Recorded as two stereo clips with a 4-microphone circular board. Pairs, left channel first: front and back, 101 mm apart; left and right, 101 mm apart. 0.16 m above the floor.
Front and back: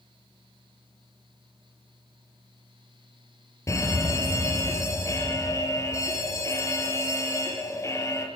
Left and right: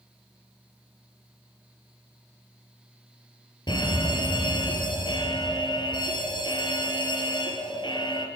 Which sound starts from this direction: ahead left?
A fire alarm, at 3.7 s.